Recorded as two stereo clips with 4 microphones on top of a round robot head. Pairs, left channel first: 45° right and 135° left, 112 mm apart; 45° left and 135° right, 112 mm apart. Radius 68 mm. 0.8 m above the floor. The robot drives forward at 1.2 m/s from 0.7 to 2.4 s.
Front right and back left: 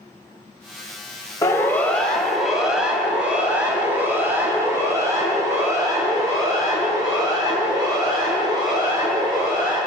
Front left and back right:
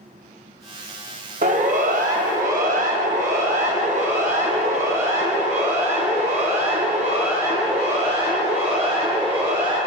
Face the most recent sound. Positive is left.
turn(degrees=-170)